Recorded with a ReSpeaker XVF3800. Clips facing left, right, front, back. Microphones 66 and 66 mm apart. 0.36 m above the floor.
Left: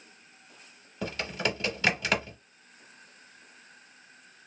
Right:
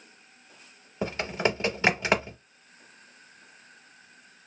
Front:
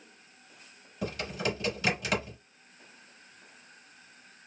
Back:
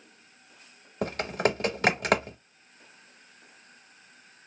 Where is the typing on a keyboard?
150° right, 0.7 m.